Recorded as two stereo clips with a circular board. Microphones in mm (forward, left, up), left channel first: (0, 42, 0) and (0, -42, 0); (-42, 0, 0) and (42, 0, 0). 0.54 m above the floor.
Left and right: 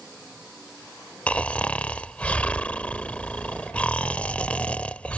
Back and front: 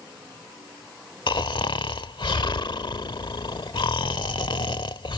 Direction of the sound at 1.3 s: 165° left.